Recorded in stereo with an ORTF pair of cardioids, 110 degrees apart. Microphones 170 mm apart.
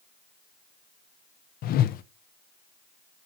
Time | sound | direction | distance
1.6 | a whoosh | 65° left | 0.7 m